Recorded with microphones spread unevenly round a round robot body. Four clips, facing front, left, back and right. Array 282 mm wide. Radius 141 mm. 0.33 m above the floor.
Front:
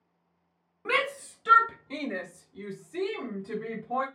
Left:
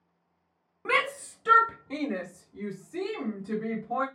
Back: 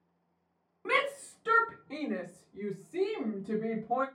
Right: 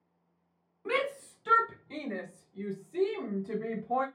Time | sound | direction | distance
0.8 | a shout | 75° left | 2.0 m